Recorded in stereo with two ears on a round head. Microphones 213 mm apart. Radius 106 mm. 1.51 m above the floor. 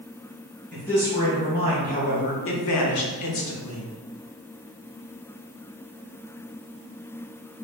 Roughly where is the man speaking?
Centre.